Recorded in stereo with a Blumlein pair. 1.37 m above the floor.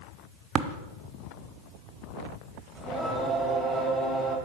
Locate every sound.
0.6 s tapping: 30° right, 0.7 m
2.8 s singing: straight ahead, 1.5 m